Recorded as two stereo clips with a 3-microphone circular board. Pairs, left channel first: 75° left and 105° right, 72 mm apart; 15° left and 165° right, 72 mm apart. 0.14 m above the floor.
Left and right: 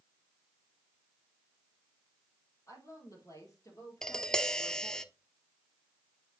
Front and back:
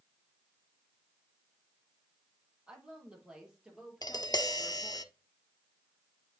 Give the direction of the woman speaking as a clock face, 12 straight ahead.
8 o'clock.